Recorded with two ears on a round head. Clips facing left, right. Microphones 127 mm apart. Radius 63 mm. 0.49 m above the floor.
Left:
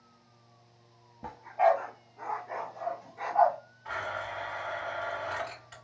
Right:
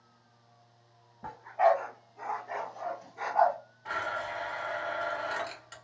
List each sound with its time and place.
1.2 s a dog barking: 20° left (ahead or behind), 0.6 m; by 3.6 s 50° right (ahead or behind), 1.4 m
3.9 s a blender: 50° right (ahead or behind), 2 m